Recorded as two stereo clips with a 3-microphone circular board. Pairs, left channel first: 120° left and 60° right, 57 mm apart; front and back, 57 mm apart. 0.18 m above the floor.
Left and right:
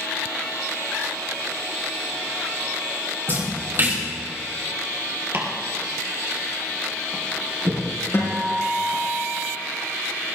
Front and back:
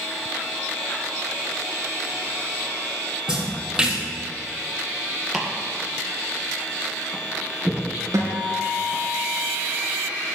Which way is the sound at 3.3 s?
105° right.